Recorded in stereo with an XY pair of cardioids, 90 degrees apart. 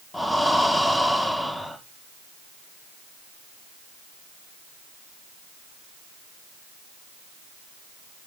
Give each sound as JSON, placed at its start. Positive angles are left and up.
{"t": 0.1, "sound": "breathing", "azimuth_deg": 5, "distance_m": 4.0}